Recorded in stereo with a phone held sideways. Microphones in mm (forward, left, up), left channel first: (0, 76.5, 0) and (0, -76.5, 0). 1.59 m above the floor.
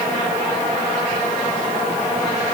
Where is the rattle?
No rattle in this recording.